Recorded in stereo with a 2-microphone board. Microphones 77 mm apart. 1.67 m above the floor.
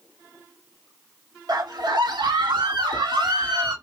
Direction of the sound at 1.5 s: 55° right (ahead or behind).